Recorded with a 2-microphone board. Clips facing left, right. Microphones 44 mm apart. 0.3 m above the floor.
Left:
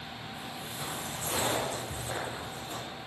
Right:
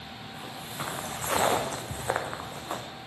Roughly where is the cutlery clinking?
I don't hear cutlery clinking.